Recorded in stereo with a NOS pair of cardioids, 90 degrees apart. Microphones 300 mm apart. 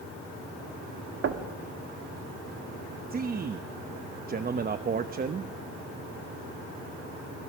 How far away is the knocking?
About 1.8 m.